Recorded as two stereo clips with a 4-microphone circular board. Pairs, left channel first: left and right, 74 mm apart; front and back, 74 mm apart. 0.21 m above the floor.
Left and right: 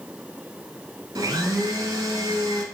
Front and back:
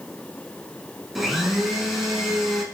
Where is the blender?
95° right, 0.6 m.